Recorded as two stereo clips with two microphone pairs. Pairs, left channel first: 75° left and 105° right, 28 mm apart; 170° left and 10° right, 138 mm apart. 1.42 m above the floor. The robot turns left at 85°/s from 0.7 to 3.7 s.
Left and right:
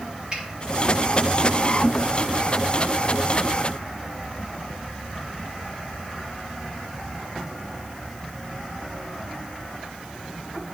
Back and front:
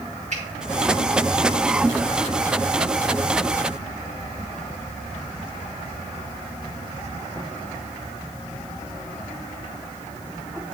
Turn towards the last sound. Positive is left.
turn(degrees=65)